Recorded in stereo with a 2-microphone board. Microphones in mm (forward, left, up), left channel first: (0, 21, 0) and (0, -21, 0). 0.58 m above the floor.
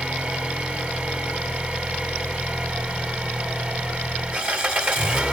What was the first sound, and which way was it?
An engine running, 35° right (ahead or behind).